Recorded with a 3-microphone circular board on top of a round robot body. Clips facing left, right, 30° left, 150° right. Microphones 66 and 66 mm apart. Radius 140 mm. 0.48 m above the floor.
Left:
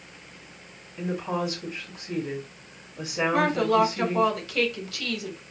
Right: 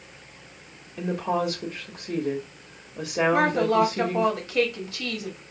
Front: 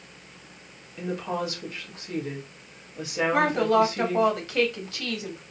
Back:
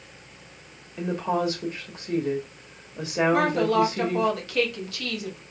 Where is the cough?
I don't hear a cough.